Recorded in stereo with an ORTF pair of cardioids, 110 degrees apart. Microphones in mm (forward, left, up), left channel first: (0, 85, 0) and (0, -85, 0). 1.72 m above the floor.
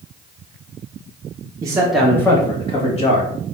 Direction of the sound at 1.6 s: 20° right.